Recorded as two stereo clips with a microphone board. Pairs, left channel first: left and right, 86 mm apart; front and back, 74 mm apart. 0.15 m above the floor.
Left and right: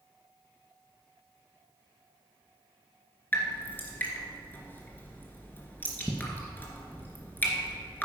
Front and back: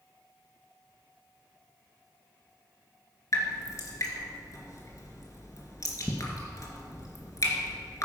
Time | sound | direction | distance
3.3 | dripping | 25° left | 2 m